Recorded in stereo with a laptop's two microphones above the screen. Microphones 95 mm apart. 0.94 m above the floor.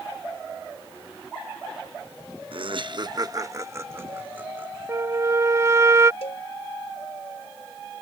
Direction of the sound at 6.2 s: 85° left.